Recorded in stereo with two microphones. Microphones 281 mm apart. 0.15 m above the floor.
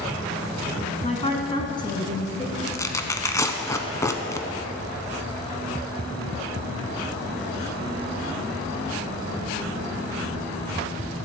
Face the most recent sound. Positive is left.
turn(degrees=10)  # may be behind; listen again after turning